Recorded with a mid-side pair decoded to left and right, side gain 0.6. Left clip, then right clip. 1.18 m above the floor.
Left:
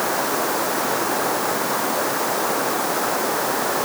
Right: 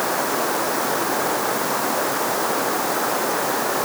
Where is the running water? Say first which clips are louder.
Even; 5° right.